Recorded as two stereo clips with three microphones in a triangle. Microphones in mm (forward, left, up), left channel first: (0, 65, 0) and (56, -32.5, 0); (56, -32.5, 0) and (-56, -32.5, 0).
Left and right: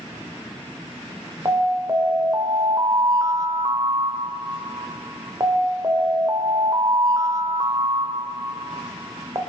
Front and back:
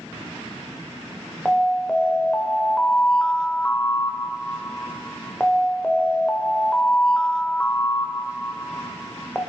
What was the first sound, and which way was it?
An alarm, 75° right.